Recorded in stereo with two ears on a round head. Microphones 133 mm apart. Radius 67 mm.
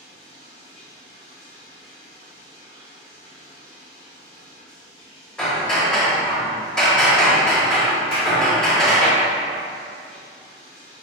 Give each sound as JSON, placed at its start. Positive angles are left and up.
{"t": 0.0, "sound": "running water", "side_deg": 35, "distance_m": 1.6}
{"t": 5.4, "sound": "hammering", "side_deg": 5, "distance_m": 1.0}
{"t": 8.1, "sound": "a clap", "side_deg": 35, "distance_m": 1.7}